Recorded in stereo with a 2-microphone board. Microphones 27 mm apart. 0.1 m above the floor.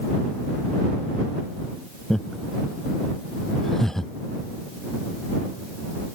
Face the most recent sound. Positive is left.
turn(degrees=15)  # may be behind; listen again after turning